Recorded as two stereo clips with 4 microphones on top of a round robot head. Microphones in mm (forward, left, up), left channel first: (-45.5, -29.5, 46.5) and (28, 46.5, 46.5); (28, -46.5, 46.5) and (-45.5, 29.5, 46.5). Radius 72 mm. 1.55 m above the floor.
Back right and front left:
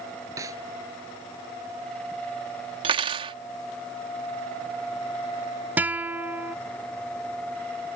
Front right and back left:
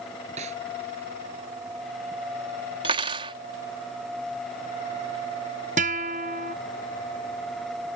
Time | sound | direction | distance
0.4 | a snare drum | 105° left | ?
2.8 | cutlery clinking | 85° left | ?
5.8 | a guitar | 120° left | ?